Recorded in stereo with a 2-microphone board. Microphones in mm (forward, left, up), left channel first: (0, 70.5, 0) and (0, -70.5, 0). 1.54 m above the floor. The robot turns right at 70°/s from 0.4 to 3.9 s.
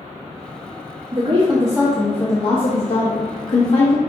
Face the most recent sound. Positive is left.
turn(degrees=135)